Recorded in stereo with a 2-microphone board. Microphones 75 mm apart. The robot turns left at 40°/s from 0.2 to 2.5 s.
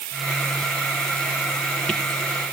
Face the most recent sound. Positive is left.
No sound to turn to.